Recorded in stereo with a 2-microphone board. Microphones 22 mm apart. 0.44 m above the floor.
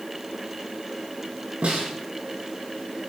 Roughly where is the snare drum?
Right.